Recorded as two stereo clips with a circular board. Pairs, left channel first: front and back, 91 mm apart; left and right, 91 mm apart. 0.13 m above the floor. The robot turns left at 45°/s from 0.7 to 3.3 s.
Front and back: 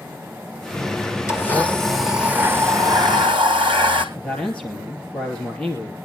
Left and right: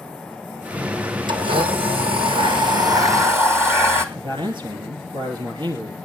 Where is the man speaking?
75° right, 3 m.